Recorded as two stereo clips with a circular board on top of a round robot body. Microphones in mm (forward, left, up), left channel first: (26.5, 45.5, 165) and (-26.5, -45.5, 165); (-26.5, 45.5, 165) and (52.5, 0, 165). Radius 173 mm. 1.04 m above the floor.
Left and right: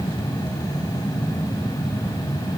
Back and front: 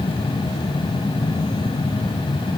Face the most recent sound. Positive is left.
No sound to turn to.